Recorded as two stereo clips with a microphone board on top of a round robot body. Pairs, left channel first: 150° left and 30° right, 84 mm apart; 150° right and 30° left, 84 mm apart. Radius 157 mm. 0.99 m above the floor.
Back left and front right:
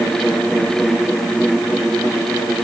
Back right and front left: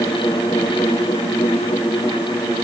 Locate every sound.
Only background noise.